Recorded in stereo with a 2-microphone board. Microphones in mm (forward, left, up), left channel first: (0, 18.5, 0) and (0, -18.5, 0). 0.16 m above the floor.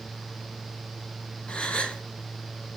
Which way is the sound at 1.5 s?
35° left (ahead or behind).